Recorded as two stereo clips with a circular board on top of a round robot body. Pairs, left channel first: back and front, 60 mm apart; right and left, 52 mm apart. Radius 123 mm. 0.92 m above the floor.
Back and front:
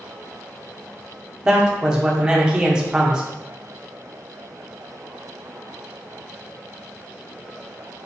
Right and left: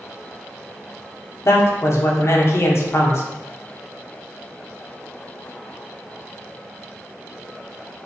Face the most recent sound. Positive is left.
turn(degrees=-75)